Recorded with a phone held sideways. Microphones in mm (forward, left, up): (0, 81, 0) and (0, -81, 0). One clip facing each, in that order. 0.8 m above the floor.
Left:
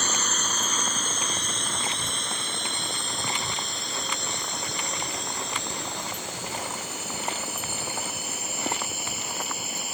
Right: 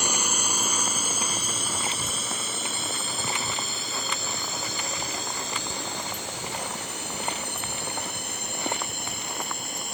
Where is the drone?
15° right (ahead or behind); by 10.0 s 5° left (ahead or behind).